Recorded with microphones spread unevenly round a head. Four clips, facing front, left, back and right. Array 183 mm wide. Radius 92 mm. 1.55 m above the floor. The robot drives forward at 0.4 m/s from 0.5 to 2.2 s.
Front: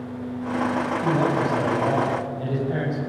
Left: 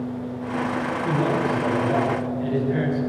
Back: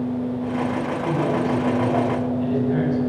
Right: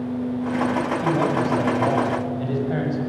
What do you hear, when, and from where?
1.0 s a man speaking: 65° right, 8 m; by 3.0 s 70° right, 7.5 m